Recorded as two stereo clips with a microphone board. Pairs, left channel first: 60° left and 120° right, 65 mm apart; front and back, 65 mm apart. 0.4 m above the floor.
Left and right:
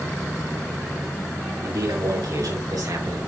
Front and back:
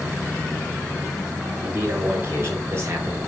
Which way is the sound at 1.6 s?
125° right.